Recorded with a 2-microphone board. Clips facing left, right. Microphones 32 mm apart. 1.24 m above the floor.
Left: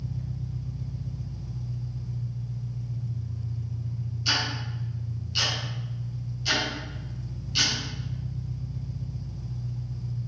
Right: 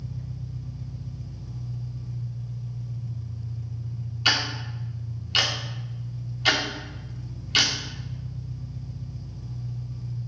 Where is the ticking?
80° right, 2.5 m.